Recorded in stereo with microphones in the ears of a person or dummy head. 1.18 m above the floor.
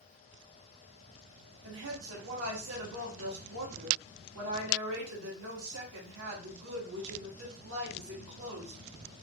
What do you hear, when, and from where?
1.6 s a woman speaking: 80° right, 1.5 m